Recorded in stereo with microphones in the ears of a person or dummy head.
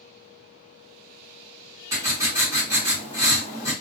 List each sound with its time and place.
1.9 s writing: 20° right (ahead or behind), 0.8 m